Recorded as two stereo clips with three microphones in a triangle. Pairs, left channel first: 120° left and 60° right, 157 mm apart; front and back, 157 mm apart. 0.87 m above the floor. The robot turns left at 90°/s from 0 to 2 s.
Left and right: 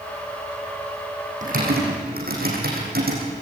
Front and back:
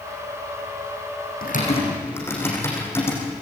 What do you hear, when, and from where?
1.4 s typing on a keyboard: 20° right, 8.5 m; by 3.2 s 75° right, 8.5 m